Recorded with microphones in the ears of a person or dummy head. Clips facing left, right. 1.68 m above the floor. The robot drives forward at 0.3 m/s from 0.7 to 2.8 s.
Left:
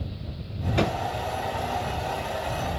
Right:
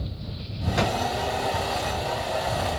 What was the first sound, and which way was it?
A drawer, 25° right (ahead or behind).